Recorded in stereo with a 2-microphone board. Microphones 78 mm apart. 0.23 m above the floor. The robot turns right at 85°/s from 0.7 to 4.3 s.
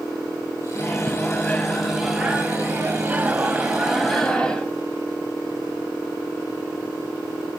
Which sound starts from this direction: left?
A microwave, at 0.8 s.